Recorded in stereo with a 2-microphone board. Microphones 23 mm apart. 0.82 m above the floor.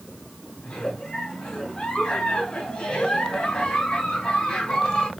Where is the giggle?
55° left (ahead or behind), 2.5 m.